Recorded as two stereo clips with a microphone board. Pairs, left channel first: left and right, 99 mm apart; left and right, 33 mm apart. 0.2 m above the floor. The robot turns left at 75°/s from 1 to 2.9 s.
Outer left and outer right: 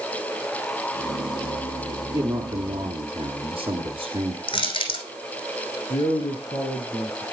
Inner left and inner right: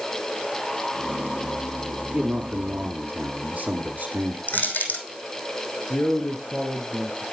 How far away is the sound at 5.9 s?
About 2.5 m.